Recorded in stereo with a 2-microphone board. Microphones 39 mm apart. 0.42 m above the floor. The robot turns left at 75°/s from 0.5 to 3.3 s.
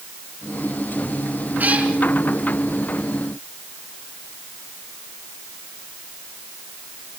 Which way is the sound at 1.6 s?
50° right (ahead or behind).